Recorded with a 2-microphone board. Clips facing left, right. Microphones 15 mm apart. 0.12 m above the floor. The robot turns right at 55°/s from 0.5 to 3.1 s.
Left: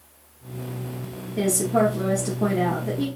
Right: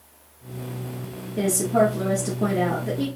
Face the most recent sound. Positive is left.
turn(degrees=-140)